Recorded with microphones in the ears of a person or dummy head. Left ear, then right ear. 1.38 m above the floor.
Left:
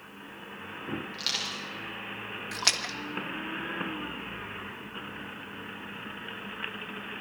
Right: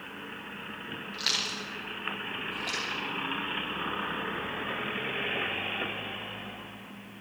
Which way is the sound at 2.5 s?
70° left (ahead or behind).